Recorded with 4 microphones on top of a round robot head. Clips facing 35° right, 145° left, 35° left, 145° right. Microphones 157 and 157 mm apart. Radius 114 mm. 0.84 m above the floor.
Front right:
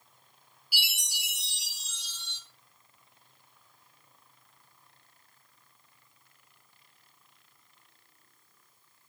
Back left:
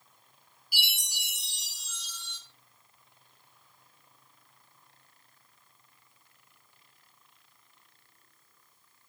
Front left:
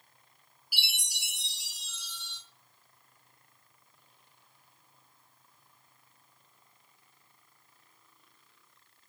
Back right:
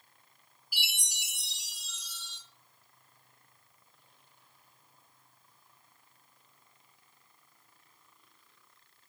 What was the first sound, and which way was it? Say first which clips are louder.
A chime: even, even; 50° right.